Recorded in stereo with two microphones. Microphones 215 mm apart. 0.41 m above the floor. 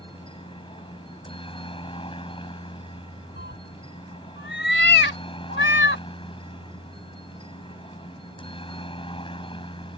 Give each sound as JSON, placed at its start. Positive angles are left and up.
{"t": 0.0, "sound": "a helicopter", "side_deg": 25}
{"t": 3.4, "sound": "a cat meowing", "side_deg": 60}